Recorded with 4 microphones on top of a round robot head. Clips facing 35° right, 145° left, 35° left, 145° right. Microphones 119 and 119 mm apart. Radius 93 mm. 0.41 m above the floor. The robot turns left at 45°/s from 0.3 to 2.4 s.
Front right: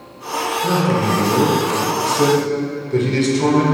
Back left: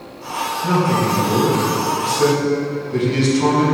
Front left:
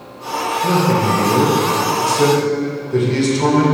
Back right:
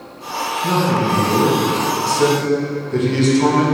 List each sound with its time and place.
0.6 s a man speaking: 40° left, 1.6 m; by 3.6 s 40° right, 1.6 m